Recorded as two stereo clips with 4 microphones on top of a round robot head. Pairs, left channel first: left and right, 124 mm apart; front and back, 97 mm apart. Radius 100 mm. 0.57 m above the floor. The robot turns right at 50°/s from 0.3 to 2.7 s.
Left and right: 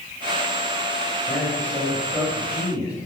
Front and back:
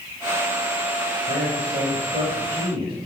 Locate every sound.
1.3 s a man speaking: 150° left, 4 m; by 2.9 s 135° right, 4 m